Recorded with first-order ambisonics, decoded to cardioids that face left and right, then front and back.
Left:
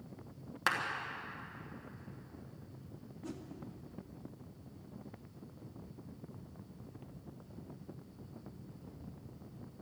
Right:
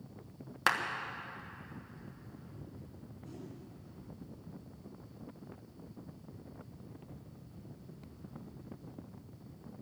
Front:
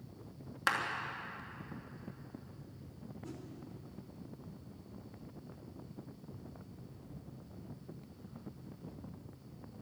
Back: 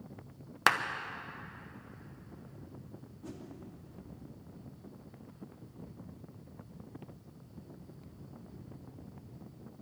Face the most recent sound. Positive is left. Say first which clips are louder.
# left 3 dB, back 1 dB
turn(degrees=125)